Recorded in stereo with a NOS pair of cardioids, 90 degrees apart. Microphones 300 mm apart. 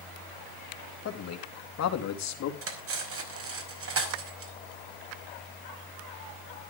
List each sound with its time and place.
1.1 s a man speaking: 55° left, 3 m; by 2.5 s 65° left, 3.5 m
2.6 s cutlery clinking: 50° right, 4.5 m